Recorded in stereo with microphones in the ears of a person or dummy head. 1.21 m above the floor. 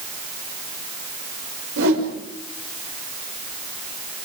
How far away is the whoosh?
About 5.5 m.